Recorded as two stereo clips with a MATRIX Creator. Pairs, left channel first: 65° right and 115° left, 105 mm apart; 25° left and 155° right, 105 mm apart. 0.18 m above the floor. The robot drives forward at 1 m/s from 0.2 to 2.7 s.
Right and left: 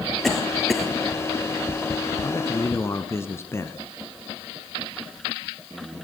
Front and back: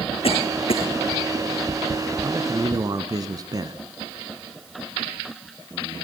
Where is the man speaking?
100° right, 1.5 m; by 3.8 s 125° right, 1.6 m.